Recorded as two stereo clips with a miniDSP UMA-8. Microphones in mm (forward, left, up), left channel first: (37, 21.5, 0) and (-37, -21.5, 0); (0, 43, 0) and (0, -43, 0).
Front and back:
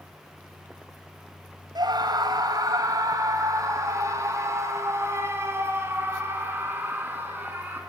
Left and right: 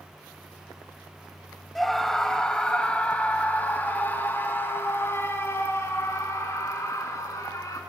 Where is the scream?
Straight behind, 2.5 m; by 7.8 s 140° left, 5.5 m.